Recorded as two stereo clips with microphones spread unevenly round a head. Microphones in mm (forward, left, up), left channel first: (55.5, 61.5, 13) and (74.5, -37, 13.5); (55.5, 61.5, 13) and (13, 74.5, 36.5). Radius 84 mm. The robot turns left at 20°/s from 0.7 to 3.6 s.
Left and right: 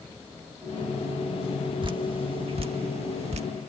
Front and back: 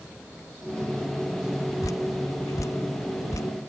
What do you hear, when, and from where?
1.8 s dripping: 45° right; by 3.5 s 80° right